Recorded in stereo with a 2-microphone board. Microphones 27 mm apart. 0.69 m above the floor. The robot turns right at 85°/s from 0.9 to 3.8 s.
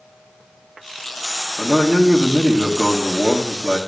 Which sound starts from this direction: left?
A man speaking, at 1.6 s.